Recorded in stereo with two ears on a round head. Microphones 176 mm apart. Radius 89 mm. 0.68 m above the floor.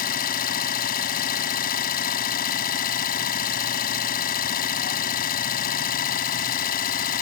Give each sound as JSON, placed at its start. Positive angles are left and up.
{"t": 0.0, "sound": "an engine running", "side_deg": 50}